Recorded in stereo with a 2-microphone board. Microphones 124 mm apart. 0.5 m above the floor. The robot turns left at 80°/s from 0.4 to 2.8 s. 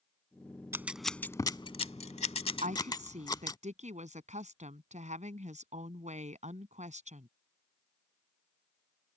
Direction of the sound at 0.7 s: 20° right (ahead or behind).